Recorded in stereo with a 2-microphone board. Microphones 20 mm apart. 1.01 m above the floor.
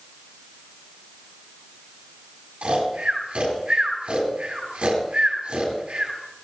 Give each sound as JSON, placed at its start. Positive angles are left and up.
{"t": 2.6, "sound": "snoring", "side_deg": -70, "distance_m": 8.0}